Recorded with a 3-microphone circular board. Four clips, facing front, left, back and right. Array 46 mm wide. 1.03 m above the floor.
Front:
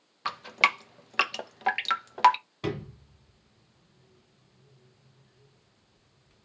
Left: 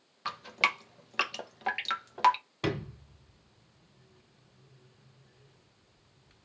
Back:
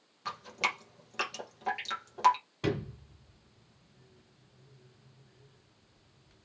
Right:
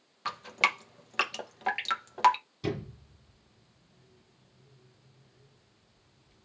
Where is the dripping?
5° right, 0.6 m.